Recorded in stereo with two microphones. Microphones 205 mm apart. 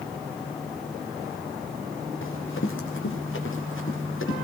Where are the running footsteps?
80° left, 3.5 m; by 4.3 s 85° left, 6.5 m.